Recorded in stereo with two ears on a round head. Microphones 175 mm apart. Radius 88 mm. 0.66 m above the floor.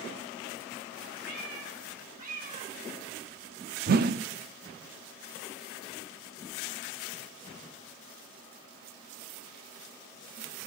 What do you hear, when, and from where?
1.2 s a cat meowing: 45° right (ahead or behind), 4 m; by 3.8 s 35° right (ahead or behind), 3 m
3.9 s a whoosh: 50° right (ahead or behind), 0.5 m